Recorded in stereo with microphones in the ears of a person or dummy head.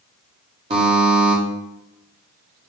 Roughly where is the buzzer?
Right.